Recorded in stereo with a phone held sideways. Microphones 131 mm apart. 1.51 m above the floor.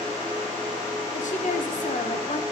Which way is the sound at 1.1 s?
75° left (ahead or behind).